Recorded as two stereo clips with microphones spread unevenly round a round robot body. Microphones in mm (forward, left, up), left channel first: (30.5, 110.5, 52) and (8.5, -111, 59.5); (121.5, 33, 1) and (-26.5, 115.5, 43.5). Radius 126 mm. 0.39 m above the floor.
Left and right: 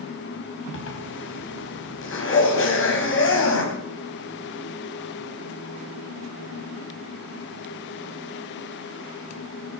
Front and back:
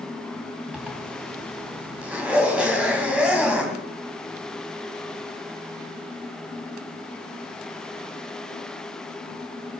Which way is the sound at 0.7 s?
60° left.